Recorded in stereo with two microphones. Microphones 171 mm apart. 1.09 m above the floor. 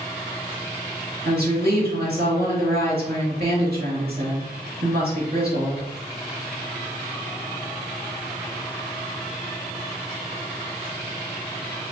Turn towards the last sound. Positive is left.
turn(degrees=-65)  # may be behind; listen again after turning